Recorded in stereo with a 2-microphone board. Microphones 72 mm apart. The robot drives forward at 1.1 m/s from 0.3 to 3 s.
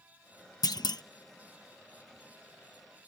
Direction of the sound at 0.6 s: 60° left (ahead or behind).